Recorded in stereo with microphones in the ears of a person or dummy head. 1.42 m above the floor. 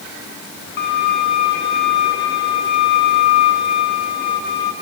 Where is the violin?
55° left (ahead or behind), 2.5 m.